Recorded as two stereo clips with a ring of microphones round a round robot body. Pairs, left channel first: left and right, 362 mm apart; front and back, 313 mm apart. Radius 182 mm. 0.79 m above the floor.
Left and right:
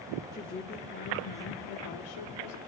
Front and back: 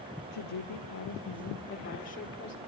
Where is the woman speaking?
10° left, 1.6 m; by 2.6 s 60° left, 2.5 m.